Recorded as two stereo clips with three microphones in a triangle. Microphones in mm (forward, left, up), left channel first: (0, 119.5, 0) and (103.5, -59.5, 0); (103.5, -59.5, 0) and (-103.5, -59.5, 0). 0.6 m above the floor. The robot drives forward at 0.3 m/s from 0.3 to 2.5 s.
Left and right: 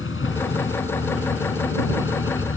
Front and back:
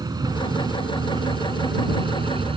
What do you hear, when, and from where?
0.0 s a vehicle: 110° left; by 2.6 s 115° left